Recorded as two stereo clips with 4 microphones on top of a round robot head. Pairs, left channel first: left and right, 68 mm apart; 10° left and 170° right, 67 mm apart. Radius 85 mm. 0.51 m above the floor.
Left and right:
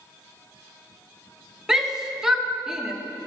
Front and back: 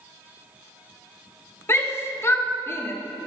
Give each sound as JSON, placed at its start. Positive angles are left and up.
{"t": 1.7, "sound": "a shout", "azimuth_deg": -15, "distance_m": 1.3}